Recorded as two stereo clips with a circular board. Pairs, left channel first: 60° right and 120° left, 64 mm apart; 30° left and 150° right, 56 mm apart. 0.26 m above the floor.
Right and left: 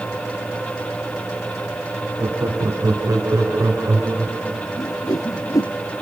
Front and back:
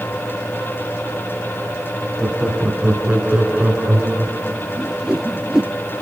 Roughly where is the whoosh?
Right.